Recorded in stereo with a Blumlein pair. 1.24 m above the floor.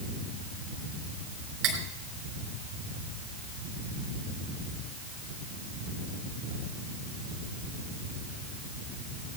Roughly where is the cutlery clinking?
Ahead right.